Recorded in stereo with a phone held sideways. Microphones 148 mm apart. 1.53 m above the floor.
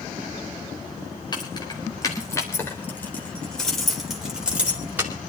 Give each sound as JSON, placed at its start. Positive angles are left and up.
{"t": 1.3, "sound": "keys jangling", "side_deg": 30, "distance_m": 4.0}